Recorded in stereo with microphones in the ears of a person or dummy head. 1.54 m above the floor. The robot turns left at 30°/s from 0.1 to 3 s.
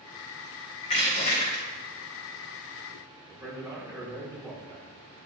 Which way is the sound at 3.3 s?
15° right (ahead or behind).